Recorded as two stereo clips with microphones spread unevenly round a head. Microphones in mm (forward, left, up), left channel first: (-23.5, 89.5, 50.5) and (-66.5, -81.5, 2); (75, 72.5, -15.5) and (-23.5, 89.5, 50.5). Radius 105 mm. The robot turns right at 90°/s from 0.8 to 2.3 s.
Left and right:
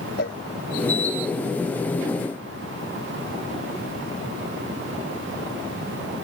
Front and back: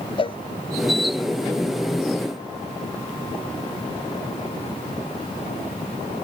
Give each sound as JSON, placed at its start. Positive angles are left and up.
{"t": 0.2, "sound": "a cowbell", "azimuth_deg": 25}